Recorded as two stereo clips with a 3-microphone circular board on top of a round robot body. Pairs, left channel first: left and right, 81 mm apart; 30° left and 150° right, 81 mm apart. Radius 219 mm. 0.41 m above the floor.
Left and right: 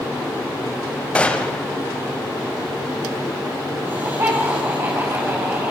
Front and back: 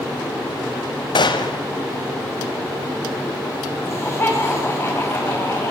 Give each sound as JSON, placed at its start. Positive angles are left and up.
{"t": 1.1, "sound": "a gunshot", "azimuth_deg": 15, "distance_m": 1.7}
{"t": 3.8, "sound": "laughter", "azimuth_deg": -35, "distance_m": 5.5}